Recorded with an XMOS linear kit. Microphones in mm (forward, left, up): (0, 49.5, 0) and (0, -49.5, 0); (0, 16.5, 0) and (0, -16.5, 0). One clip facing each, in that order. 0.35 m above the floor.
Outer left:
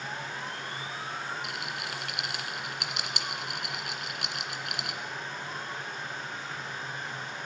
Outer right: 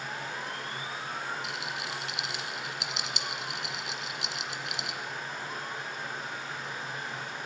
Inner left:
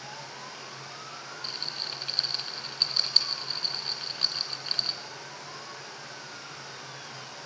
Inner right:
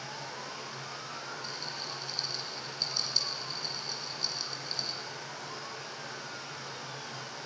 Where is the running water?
5° right (ahead or behind), 8 m.